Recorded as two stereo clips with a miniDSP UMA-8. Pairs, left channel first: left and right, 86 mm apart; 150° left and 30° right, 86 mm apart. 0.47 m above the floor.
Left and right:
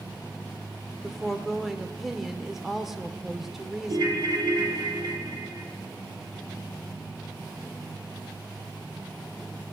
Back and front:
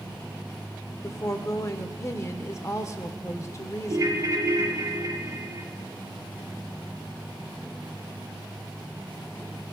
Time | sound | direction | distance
1.0 | a woman speaking | 175° right | 0.9 m
3.9 | a ringtone | 65° right | 1.4 m